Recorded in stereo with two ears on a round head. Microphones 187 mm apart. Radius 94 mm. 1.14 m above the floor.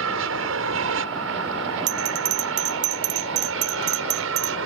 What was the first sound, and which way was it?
An aircraft, 70° right (ahead or behind).